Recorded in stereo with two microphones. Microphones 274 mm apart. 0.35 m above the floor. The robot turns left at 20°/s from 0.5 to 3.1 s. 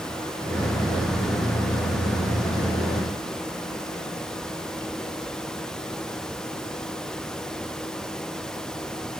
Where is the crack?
I don't hear a crack.